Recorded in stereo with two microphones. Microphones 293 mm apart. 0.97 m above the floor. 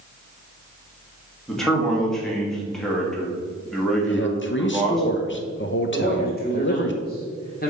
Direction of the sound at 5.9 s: 30° left (ahead or behind).